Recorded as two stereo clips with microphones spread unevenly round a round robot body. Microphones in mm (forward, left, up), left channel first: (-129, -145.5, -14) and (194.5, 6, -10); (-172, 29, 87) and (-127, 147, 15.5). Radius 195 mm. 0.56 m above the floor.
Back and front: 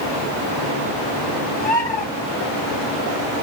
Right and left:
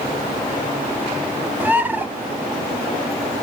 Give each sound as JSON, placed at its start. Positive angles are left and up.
{"t": 1.6, "sound": "a bird", "azimuth_deg": 135, "distance_m": 0.7}